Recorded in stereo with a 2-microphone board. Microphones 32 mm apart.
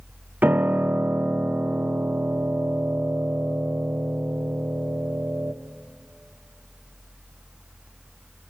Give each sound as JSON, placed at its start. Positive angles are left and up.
{"t": 0.4, "sound": "a piano", "side_deg": -80, "distance_m": 1.2}